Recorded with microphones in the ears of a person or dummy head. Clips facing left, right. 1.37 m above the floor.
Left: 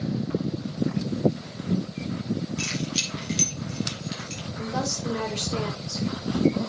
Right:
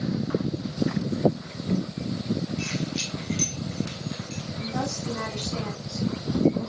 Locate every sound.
2.6 s keys jangling: 60° left (ahead or behind), 5.5 m; by 4.5 s 50° left (ahead or behind), 4 m
4.6 s a woman speaking: 70° left (ahead or behind), 5 m